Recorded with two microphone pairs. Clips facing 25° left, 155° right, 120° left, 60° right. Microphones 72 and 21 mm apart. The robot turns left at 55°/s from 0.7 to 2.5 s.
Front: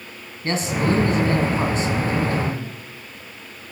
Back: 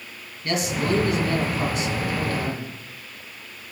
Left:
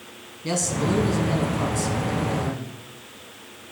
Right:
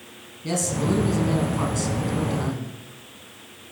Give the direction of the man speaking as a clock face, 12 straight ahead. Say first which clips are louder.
Front 3 dB, even; 10 o'clock.